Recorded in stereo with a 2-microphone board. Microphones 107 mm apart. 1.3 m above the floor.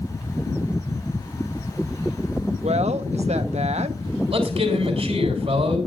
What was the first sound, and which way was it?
A woman speaking, 90° right.